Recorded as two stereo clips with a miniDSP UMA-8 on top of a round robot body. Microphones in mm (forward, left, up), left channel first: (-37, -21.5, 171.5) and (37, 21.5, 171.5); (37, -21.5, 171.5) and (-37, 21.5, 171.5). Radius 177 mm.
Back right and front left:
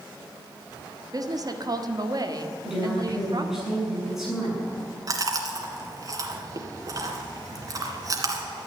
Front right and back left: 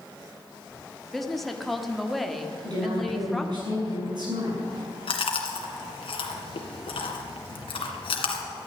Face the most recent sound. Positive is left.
turn(degrees=-20)